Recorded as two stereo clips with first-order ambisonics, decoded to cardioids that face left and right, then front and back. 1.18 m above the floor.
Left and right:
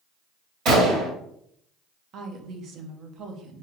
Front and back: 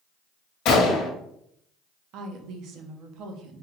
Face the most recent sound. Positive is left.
turn(degrees=-140)